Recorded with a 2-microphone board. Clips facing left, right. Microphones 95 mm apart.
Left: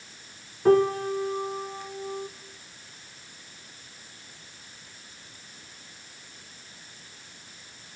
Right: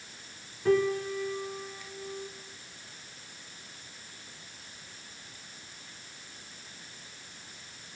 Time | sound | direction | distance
0.7 | a piano | 50° left (ahead or behind) | 0.6 m